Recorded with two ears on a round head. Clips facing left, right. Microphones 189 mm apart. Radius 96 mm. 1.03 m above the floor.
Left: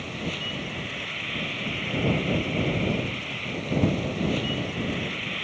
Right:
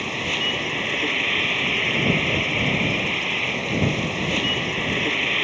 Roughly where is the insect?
Right.